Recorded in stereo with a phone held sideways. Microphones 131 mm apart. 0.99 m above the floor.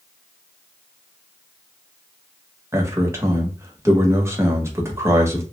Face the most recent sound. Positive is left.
turn(degrees=-20)  # may be behind; listen again after turning